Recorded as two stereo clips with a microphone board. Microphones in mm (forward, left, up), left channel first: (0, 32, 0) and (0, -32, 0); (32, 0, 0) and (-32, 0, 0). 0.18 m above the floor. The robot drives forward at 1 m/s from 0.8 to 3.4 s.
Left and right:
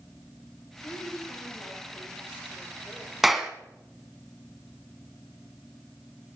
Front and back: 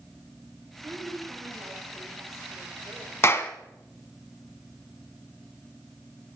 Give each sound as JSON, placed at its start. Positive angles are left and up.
{"t": 0.8, "sound": "a woman speaking", "azimuth_deg": 135, "distance_m": 3.5}
{"t": 3.2, "sound": "a clap", "azimuth_deg": -5, "distance_m": 1.2}